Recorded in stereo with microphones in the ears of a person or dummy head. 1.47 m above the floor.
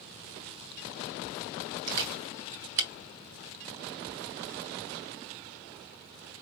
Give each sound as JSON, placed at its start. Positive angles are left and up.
{"t": 1.9, "sound": "a camera shutter", "side_deg": -55, "distance_m": 1.9}